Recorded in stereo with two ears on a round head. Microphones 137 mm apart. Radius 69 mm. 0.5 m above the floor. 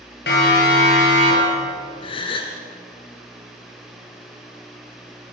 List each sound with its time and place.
0.3 s a siren: 70° left (ahead or behind), 8 m; by 1.6 s 80° left, 7.5 m
2.0 s a gasp: 35° left (ahead or behind), 2.5 m